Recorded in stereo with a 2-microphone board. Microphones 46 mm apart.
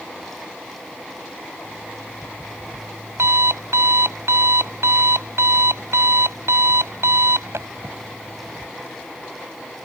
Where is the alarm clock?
85° right.